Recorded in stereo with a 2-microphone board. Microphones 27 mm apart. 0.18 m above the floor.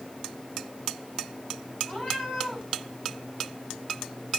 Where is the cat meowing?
45° left (ahead or behind), 2.5 m.